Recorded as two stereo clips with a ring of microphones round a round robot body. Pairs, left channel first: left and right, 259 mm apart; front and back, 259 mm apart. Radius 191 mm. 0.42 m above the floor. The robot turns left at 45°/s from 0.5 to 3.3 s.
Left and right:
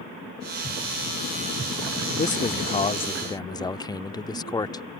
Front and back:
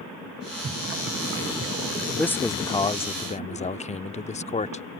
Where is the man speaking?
80° left; by 4.8 s 30° left.